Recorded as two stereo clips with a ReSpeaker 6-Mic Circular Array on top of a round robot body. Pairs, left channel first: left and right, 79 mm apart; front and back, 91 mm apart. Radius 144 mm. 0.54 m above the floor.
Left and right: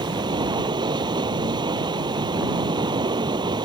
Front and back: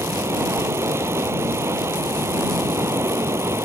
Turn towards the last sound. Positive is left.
turn(degrees=-115)